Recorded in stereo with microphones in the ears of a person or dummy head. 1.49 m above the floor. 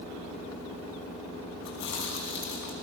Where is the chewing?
60° left (ahead or behind), 5 m.